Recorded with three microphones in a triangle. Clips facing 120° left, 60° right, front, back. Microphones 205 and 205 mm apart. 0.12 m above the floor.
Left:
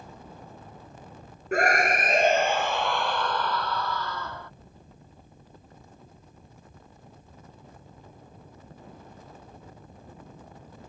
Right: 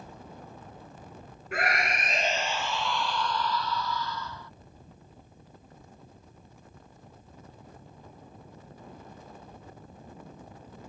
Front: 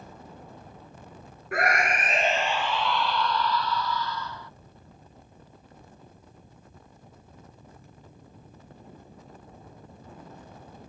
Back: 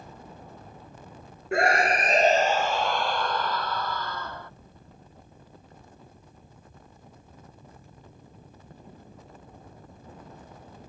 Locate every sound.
1.5 s a scream: 130° left; by 4.5 s 145° left